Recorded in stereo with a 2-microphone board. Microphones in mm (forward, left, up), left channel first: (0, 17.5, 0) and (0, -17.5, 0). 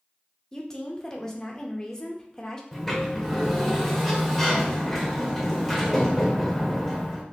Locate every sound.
0.5 s a woman speaking: 15° left (ahead or behind), 0.7 m
2.7 s a sliding door: 5° left (ahead or behind), 0.9 m